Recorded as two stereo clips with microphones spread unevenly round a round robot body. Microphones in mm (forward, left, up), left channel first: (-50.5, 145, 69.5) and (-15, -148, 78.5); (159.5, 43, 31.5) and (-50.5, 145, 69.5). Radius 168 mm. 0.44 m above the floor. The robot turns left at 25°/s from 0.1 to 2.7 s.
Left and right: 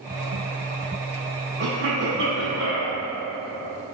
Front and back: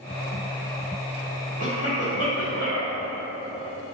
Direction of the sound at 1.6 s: 60° right.